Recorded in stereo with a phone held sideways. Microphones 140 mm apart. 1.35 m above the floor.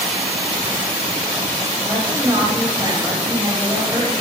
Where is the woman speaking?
25° right (ahead or behind), 7 m.